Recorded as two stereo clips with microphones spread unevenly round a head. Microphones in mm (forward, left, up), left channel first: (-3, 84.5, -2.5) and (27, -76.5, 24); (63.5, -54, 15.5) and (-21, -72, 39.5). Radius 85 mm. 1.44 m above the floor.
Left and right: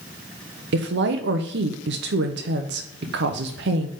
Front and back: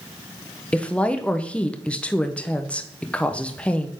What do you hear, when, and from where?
0.7 s a woman speaking: 60° right, 0.7 m